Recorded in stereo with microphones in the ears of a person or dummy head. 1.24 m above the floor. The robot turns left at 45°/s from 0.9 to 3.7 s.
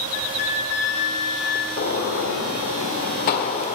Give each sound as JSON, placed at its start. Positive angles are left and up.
{"t": 0.1, "sound": "a flute", "azimuth_deg": 95, "distance_m": 1.1}
{"t": 1.8, "sound": "a gunshot", "azimuth_deg": 130, "distance_m": 1.4}